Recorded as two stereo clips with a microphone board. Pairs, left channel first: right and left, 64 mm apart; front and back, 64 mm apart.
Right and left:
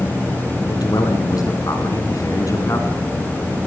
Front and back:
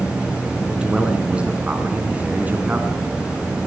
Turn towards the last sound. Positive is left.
turn(degrees=-120)